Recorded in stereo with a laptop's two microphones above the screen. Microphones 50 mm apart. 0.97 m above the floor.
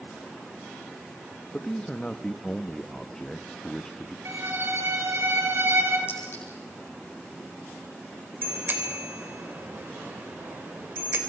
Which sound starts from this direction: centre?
A man speaking, at 1.5 s.